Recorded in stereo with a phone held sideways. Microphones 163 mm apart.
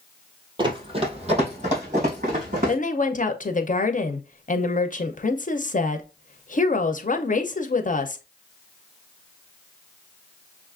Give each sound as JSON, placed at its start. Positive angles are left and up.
{"t": 0.6, "sound": "running footsteps", "side_deg": -30, "distance_m": 1.5}
{"t": 2.7, "sound": "a woman speaking", "side_deg": 50, "distance_m": 0.6}